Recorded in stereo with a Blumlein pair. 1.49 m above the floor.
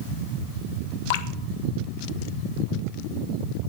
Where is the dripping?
50° left, 1.0 m.